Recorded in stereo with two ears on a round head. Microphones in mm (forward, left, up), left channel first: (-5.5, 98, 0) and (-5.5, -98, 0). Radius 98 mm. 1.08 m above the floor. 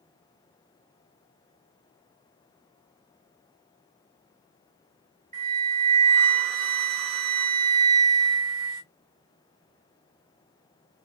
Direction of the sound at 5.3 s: 25° right (ahead or behind).